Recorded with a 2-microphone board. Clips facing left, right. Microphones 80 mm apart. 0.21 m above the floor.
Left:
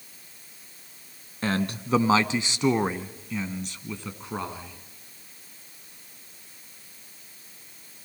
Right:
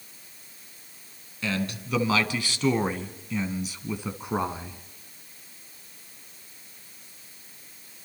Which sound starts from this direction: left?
A man speaking, at 1.4 s.